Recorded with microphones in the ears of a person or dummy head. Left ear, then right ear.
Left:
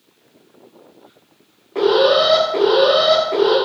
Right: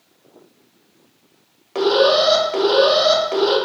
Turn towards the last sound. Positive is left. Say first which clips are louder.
# left 1 dB
turn(degrees=-55)  # may be behind; listen again after turning